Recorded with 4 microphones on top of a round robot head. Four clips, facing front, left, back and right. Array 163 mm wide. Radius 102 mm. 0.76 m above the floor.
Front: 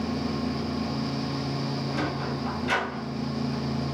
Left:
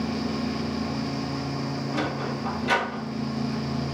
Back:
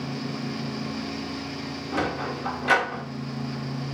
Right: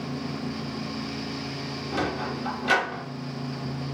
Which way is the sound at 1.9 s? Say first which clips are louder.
Right 3 dB, back 2 dB; 160° right.